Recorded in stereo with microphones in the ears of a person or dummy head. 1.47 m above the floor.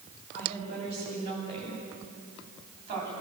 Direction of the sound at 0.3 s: 35° right (ahead or behind).